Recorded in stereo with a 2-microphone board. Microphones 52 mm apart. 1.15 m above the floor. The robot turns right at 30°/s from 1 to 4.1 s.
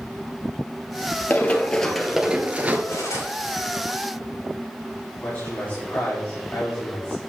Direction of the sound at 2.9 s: 65° left (ahead or behind).